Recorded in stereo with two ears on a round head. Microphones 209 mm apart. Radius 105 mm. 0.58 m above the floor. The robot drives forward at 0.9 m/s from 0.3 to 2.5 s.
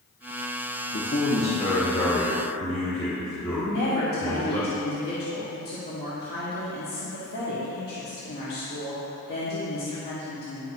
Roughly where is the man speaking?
Left.